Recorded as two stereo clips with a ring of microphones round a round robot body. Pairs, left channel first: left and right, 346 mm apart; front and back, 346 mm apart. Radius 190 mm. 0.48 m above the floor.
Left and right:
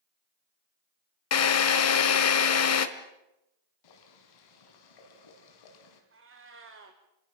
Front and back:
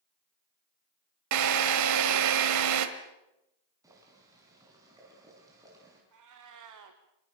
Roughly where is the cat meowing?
Behind right.